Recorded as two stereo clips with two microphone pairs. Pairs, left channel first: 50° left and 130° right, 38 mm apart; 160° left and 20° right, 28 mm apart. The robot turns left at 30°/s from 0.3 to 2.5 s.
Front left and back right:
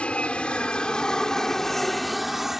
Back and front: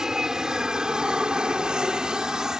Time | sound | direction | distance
0.0 | an aircraft | 30° left | ?